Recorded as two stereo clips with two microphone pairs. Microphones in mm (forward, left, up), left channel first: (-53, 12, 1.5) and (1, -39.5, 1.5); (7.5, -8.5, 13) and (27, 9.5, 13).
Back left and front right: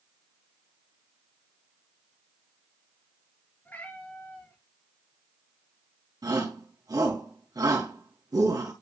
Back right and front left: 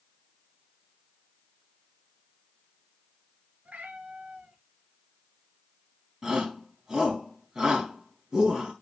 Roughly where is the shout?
Ahead.